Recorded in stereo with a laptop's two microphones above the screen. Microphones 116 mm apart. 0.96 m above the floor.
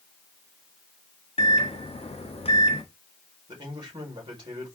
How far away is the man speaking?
About 4 m.